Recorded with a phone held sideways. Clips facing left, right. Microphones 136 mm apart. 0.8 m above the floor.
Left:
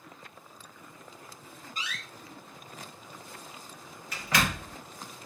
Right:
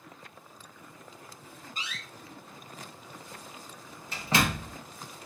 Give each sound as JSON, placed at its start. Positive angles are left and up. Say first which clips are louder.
{"t": 1.8, "sound": "a door slam", "louder": "left 2 dB", "side_deg": -30, "distance_m": 0.7}